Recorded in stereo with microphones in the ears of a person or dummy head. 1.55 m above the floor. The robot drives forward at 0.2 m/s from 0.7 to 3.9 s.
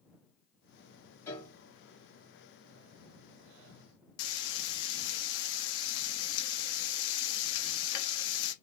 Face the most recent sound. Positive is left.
turn(degrees=65)  # may be behind; listen again after turning